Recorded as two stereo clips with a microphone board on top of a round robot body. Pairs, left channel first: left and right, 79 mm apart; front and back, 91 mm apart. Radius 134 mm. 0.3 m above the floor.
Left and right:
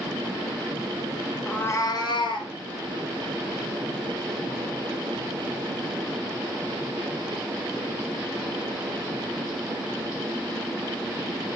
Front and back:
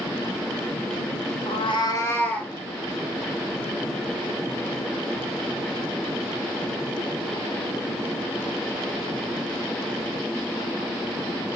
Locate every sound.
1.5 s a cat meowing: 10° left, 0.8 m; by 2.5 s 80° left, 1.7 m